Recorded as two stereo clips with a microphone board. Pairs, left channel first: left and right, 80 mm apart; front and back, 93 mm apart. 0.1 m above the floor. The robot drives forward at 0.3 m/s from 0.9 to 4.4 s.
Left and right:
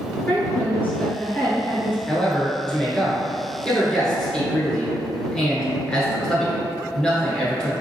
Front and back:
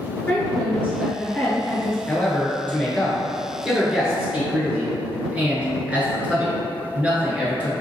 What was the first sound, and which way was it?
A woman speaking, 50° left.